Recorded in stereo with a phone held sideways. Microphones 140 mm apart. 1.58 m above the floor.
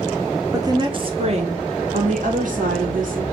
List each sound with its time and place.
0.5 s a woman speaking: 25° right (ahead or behind), 1.0 m; by 3.2 s 75° right (ahead or behind), 2 m